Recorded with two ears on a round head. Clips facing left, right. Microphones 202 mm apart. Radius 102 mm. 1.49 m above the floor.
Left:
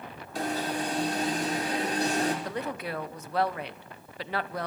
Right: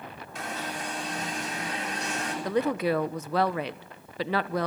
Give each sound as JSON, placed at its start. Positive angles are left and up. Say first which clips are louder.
{"t": 0.3, "sound": "an alarm", "louder": "left 6 dB", "side_deg": 30, "distance_m": 5.0}
{"t": 2.5, "sound": "a woman speaking", "louder": "right 8 dB", "side_deg": -60, "distance_m": 1.2}